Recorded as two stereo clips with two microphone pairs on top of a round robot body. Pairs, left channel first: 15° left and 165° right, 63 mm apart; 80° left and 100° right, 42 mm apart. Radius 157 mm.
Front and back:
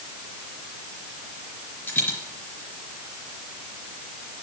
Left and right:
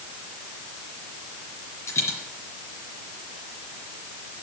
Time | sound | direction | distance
1.9 | a dropped coin | 70° left | 4 m